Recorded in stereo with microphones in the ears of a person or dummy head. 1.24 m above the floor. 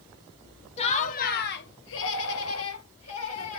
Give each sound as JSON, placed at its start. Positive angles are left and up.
{"t": 0.8, "sound": "laughter", "side_deg": 35, "distance_m": 1.0}